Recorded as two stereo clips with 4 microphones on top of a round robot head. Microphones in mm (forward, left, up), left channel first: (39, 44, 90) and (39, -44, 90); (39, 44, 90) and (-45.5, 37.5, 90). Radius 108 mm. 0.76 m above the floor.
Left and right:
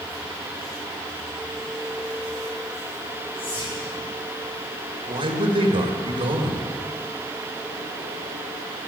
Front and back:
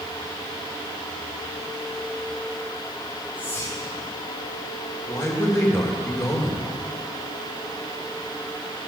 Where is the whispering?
75° left, 4.5 m.